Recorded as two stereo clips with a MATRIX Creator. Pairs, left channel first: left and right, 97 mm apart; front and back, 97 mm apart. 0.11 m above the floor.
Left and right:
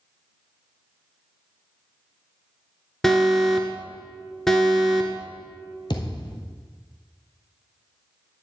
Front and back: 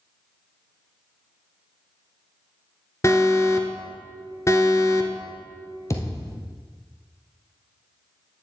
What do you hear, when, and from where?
3.0 s an alarm: 10° left, 1.1 m
5.9 s a thud: 55° left, 1.5 m